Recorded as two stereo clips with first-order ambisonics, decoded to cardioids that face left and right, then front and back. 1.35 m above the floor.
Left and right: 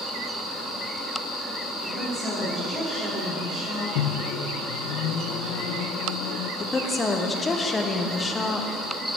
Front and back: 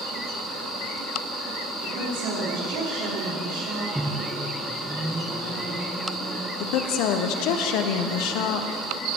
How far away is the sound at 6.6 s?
About 0.7 m.